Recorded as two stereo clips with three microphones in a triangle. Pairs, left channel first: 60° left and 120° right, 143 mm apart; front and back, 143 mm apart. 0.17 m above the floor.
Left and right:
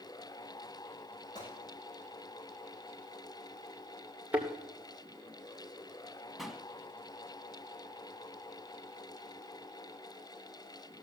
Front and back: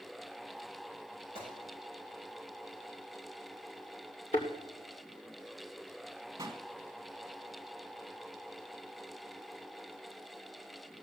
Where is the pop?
150° left, 1.4 m.